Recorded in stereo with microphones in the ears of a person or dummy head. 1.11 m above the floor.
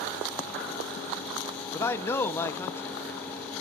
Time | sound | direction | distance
1.7 | a man speaking | 15° left (ahead or behind) | 0.6 m